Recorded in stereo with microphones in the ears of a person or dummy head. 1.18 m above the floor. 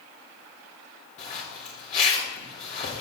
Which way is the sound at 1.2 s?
45° left (ahead or behind).